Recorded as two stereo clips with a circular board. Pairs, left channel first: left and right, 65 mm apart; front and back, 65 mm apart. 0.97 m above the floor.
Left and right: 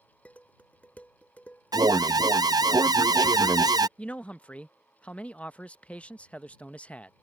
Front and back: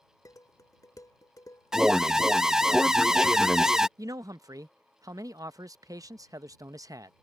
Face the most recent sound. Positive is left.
turn(degrees=160)